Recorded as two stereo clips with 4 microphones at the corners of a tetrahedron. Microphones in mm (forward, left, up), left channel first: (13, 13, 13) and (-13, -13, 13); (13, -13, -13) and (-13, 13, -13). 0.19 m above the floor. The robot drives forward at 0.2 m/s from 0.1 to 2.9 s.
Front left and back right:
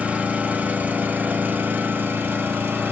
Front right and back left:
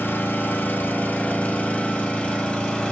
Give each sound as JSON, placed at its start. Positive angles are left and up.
{"t": 0.0, "sound": "an engine running", "azimuth_deg": -80, "distance_m": 0.8}